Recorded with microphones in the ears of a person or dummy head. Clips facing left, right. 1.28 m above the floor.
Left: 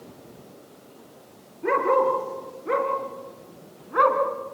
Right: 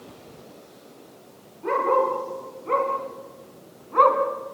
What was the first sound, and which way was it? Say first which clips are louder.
A dog barking: left 1 dB; 20° left (ahead or behind).